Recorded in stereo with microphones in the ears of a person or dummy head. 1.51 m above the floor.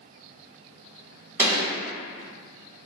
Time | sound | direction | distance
1.4 | a gunshot | 5° right (ahead or behind) | 1.8 m